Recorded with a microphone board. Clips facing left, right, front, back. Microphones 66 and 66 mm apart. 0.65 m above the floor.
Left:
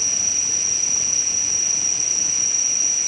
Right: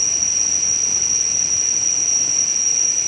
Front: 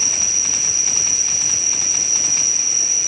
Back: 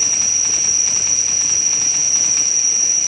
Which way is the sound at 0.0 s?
5° right.